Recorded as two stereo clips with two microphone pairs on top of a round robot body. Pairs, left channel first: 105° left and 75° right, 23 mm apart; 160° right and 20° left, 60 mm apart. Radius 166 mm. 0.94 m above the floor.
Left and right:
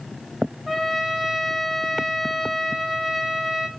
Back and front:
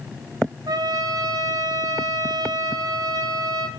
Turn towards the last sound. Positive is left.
turn(degrees=5)